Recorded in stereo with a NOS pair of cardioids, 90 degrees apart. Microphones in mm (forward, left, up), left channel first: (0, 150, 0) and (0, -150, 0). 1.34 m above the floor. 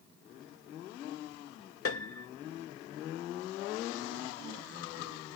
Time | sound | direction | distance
1.9 | a piano | 50° left | ?